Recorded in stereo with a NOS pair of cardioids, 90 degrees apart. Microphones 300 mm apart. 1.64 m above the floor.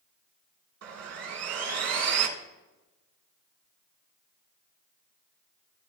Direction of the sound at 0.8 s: 50° right.